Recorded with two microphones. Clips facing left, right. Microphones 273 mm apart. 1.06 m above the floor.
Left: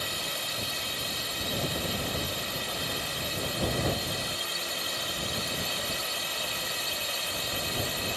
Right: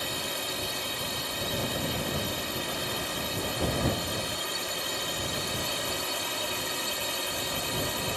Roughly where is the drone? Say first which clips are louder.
Right 3 dB; right.